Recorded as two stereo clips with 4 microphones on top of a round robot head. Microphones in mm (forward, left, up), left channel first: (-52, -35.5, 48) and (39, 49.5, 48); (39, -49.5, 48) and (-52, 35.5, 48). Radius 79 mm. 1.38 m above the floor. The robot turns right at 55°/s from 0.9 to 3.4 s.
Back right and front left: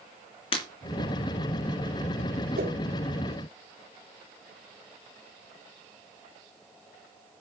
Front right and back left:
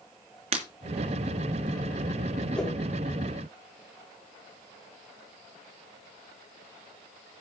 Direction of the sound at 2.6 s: 40° left.